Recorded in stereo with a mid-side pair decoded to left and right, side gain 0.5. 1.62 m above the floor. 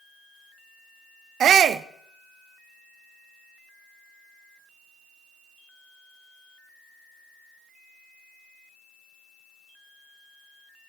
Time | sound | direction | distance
1.4 | a shout | 55° right | 0.7 m